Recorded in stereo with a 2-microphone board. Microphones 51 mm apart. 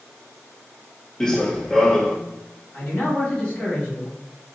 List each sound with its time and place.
1.2 s running footsteps: 10° left (ahead or behind), 0.6 m
2.7 s a man speaking: 30° left (ahead or behind), 1.7 m